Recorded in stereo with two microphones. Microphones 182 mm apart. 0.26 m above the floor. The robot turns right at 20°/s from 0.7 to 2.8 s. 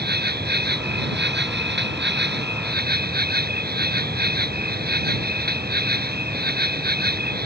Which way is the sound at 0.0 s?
110° right.